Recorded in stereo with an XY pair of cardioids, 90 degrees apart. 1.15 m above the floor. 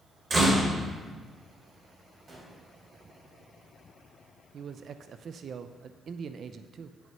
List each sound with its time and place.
0.3 s a door slam: 40° right, 3.5 m
2.3 s a gunshot: 40° right, 4 m
4.5 s a man speaking: 60° right, 0.5 m